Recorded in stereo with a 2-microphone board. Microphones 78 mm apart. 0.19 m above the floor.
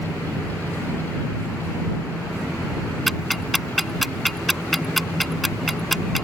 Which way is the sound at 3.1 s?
Centre (ahead or behind).